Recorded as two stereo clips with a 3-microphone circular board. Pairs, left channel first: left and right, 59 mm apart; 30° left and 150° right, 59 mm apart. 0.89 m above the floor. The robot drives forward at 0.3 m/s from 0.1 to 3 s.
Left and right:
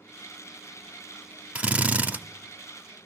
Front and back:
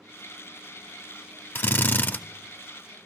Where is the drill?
20° right, 0.7 m; by 2.2 s 30° right, 0.5 m.